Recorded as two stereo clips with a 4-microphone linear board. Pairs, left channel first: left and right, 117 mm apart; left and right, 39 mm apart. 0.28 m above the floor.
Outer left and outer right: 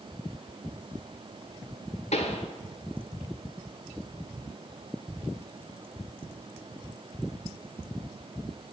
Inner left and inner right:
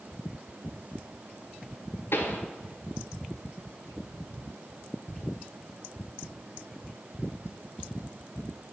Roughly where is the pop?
Left.